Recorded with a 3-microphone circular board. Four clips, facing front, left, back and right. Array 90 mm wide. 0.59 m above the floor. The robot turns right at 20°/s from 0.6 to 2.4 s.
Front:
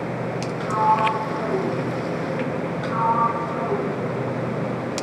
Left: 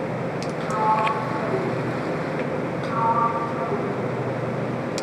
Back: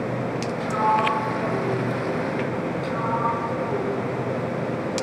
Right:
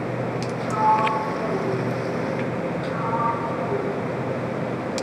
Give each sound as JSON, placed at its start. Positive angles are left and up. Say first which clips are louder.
{"t": 0.6, "sound": "a sliding door", "louder": "right 2 dB, front 2 dB", "azimuth_deg": 25, "distance_m": 6.0}
{"t": 2.8, "sound": "a sliding door", "louder": "left 4 dB, front 6 dB", "azimuth_deg": 35, "distance_m": 4.5}